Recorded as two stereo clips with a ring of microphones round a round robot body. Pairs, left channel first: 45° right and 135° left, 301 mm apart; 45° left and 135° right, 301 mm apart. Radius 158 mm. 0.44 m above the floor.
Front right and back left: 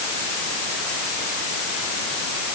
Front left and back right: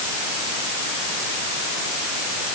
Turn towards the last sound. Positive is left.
No sound to turn to.